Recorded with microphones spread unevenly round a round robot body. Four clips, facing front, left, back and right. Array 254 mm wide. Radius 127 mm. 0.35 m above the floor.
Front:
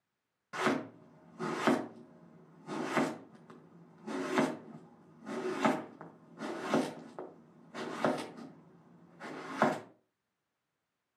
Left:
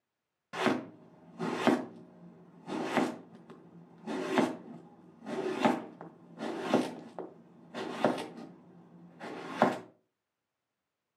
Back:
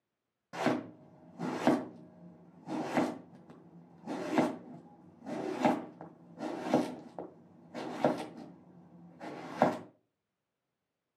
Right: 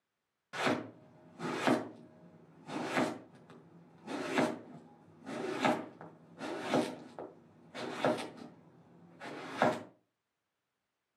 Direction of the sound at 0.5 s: 145° left.